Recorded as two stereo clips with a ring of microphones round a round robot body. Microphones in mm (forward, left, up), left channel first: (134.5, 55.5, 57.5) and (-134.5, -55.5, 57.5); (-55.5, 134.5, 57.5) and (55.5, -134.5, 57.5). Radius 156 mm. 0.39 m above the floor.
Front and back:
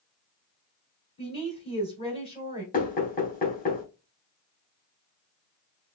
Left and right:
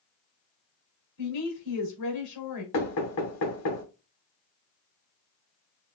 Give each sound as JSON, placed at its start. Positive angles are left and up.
{"t": 1.2, "sound": "a woman speaking", "azimuth_deg": 90, "distance_m": 2.5}
{"t": 2.7, "sound": "knocking", "azimuth_deg": 85, "distance_m": 2.5}